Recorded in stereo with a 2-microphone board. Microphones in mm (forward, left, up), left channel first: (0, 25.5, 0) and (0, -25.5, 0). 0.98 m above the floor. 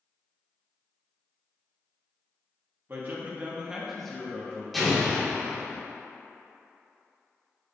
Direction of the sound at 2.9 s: 45° right (ahead or behind).